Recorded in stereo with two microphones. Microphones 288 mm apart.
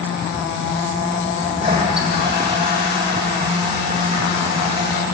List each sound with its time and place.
1.4 s a toilet flushing: 20° right (ahead or behind), 8 m